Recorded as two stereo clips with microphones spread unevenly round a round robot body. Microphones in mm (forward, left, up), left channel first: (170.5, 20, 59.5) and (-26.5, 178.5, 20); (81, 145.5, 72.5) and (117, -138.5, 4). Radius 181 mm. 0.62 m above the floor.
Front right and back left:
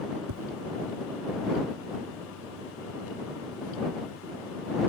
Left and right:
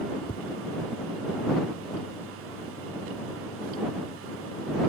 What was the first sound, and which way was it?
Tapping, 170° left.